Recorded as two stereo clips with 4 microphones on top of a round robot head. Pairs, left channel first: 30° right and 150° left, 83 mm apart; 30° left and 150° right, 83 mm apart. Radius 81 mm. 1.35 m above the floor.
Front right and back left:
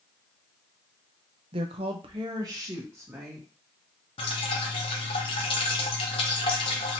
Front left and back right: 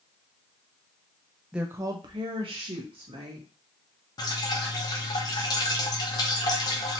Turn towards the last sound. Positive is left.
turn(degrees=-10)